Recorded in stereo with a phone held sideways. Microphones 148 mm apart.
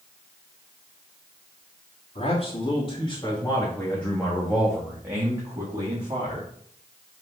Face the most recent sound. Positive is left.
turn(degrees=-35)  # may be behind; listen again after turning